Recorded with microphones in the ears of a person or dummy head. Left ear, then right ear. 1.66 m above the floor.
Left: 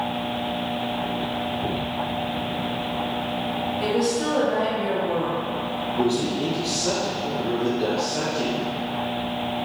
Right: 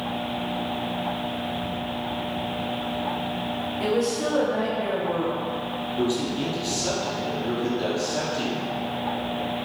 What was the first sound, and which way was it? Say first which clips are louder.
A woman speaking: even; 20° right (ahead or behind).